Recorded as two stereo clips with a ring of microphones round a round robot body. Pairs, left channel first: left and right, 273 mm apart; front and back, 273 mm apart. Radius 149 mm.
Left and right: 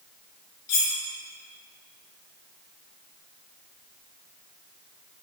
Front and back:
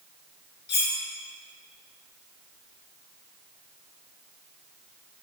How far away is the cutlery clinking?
About 3 m.